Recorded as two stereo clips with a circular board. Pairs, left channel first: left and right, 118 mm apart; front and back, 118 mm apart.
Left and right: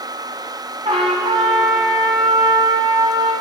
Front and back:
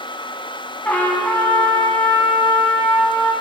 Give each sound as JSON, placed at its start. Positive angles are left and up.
{"t": 0.8, "sound": "a trumpet", "azimuth_deg": -70, "distance_m": 2.0}